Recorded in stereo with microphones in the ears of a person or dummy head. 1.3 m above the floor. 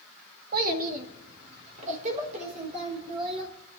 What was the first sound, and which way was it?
A child speaking, 50° right (ahead or behind).